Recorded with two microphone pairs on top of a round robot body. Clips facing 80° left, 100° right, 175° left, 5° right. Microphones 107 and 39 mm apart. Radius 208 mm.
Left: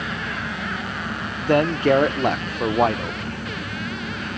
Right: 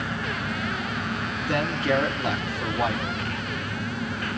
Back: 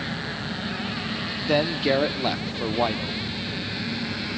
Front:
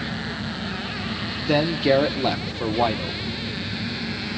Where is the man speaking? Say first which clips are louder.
Left 8 dB, front 3 dB; 80° left, 1.3 m.